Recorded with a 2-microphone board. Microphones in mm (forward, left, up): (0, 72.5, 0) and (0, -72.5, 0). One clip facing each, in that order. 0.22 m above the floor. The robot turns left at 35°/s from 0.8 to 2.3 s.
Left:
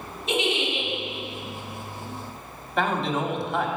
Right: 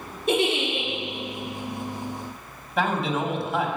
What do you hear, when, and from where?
0.3 s a giggle: 55° right (ahead or behind), 2.5 m
2.8 s a man speaking: 5° right (ahead or behind), 1.1 m